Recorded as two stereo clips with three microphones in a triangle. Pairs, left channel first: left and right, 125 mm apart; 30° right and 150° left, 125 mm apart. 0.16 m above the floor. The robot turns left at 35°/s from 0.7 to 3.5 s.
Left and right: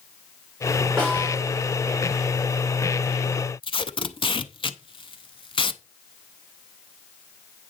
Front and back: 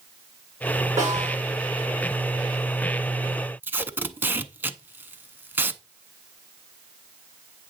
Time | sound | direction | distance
1.0 | a snare drum | 175° left | 7 m
3.6 | tape being pulled | 85° left | 0.6 m